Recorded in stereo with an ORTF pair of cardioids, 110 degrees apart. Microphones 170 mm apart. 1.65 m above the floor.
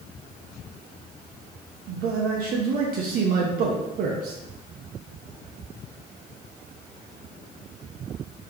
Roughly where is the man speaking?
Ahead right.